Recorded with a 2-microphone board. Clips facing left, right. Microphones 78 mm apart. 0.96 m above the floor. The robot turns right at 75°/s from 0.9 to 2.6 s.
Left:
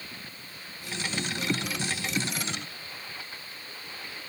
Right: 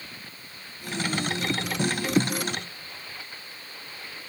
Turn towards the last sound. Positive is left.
No sound to turn to.